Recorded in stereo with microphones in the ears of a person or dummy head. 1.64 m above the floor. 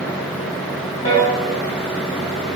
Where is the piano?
30° left (ahead or behind), 1.6 m.